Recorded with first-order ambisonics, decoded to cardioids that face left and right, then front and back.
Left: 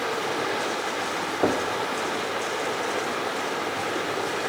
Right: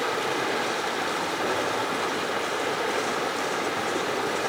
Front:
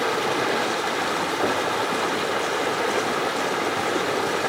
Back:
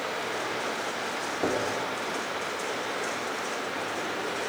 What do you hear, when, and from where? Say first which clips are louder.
0.0 s running water: even, front 8 dB; 5° right, 0.7 m
1.4 s knocking: left 5 dB, front 2 dB; 80° left, 1.3 m